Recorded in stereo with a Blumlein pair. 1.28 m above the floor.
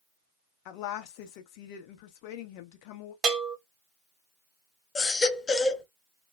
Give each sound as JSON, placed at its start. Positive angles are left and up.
{"t": 0.7, "sound": "a woman speaking", "azimuth_deg": 45, "distance_m": 0.9}
{"t": 3.2, "sound": "a bell", "azimuth_deg": -25, "distance_m": 0.8}
{"t": 5.0, "sound": "a baby crying", "azimuth_deg": 20, "distance_m": 0.7}